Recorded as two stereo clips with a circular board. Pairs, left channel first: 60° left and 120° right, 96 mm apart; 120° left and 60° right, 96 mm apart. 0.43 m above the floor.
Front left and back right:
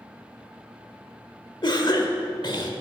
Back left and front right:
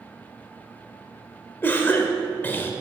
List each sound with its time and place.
1.6 s a cough: 60° left, 1.1 m